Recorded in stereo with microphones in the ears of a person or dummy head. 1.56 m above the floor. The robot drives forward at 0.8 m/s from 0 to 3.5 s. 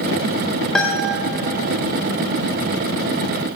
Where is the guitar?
5° left (ahead or behind), 1.7 m.